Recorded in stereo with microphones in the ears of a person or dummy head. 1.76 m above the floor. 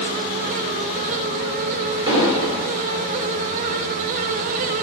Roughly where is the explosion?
Right.